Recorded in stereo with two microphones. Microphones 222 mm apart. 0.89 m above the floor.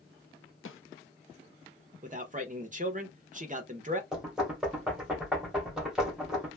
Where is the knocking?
5° right (ahead or behind), 1.1 m.